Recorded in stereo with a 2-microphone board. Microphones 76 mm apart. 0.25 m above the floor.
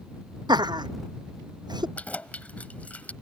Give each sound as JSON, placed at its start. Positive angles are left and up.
{"t": 0.5, "sound": "laughter", "side_deg": -70}
{"t": 2.0, "sound": "keys jangling", "side_deg": 20}